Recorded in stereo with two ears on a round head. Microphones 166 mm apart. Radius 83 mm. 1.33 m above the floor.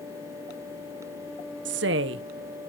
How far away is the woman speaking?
About 0.5 m.